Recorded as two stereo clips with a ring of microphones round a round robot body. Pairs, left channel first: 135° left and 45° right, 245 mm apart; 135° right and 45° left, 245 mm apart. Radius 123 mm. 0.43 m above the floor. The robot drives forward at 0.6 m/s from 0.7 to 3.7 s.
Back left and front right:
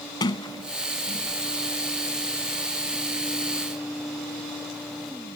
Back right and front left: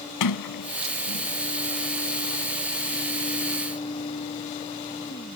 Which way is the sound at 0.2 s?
150° right.